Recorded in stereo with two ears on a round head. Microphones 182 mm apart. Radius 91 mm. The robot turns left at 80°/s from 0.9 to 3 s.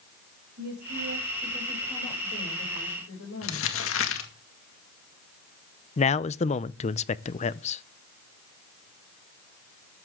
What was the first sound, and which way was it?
A woman speaking, 115° right.